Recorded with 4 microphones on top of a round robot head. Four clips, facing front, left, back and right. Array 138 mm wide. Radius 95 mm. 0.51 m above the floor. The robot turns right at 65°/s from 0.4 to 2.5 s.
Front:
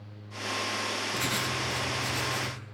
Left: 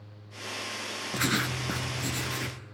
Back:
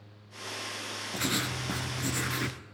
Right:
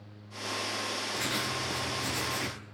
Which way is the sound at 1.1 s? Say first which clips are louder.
Left 7 dB, back 3 dB; 85° left.